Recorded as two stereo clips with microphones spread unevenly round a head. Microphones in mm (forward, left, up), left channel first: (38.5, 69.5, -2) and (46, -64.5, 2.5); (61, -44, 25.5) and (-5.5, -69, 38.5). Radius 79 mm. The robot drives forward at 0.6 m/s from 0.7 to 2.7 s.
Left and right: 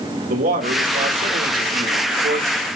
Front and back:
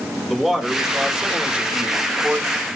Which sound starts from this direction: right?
A man speaking, at 0.3 s.